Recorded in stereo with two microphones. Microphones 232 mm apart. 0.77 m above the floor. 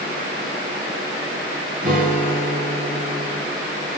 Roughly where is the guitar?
Right.